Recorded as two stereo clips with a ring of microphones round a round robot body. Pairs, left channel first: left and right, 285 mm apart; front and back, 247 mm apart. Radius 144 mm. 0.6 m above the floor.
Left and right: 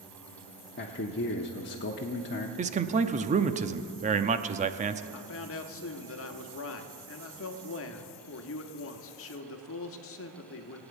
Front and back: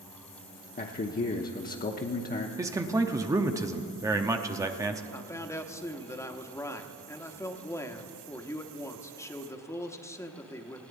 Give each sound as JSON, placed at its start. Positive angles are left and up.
{"t": 0.8, "sound": "a man speaking", "azimuth_deg": 45, "distance_m": 0.9}
{"t": 2.6, "sound": "a man speaking", "azimuth_deg": -115, "distance_m": 0.7}
{"t": 5.1, "sound": "a man speaking", "azimuth_deg": 75, "distance_m": 1.2}